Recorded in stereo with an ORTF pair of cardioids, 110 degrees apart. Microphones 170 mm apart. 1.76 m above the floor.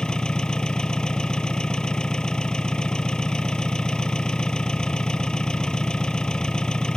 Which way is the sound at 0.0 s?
5° left.